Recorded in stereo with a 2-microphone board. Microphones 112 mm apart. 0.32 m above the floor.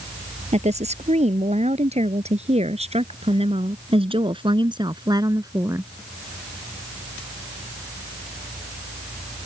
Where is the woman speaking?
80° right; by 5.9 s 25° right (ahead or behind).